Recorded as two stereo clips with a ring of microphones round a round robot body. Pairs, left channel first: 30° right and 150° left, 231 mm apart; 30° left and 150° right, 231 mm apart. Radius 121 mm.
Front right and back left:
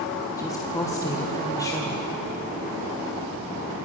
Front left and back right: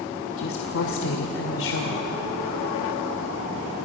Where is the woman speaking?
45° left, 1.9 m.